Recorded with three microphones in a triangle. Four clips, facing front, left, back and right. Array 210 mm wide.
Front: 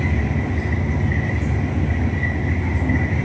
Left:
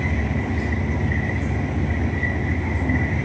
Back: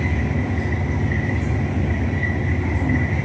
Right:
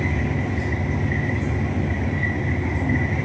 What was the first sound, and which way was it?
Only background noise.